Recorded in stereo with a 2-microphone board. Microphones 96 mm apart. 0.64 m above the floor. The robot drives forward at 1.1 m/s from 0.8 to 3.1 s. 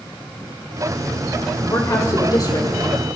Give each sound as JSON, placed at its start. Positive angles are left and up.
{"t": 1.6, "sound": "a woman speaking", "side_deg": 35, "distance_m": 3.0}